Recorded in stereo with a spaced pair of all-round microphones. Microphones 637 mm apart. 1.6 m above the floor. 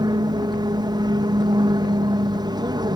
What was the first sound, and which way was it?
An aircraft, 5° right (ahead or behind).